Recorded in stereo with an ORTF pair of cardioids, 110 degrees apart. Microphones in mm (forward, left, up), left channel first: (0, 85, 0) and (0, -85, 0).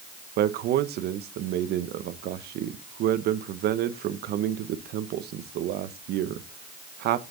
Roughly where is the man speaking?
Right.